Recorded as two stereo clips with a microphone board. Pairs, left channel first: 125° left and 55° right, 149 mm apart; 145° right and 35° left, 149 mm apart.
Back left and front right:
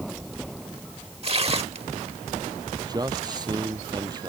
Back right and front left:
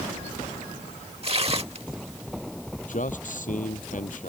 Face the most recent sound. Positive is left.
turn(degrees=-120)